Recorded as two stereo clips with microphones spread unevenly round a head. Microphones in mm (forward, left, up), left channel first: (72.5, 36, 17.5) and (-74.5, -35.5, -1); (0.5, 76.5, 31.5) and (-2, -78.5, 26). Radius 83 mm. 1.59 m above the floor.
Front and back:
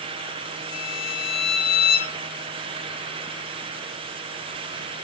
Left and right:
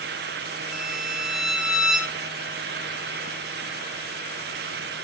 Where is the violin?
5° right, 1.9 m.